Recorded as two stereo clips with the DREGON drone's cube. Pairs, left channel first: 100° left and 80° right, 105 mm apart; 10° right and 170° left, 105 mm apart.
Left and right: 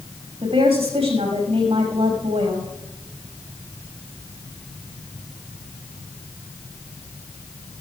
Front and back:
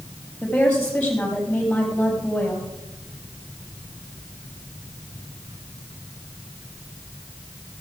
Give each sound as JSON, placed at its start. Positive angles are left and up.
{"t": 0.4, "sound": "a woman speaking", "azimuth_deg": -90, "distance_m": 6.0}